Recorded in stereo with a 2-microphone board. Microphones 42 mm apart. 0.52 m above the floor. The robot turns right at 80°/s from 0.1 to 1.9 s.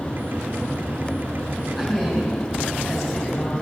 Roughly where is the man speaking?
Centre.